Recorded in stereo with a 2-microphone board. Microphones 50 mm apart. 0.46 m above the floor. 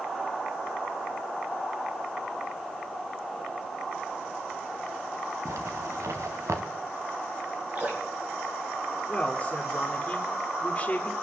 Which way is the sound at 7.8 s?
35° right (ahead or behind).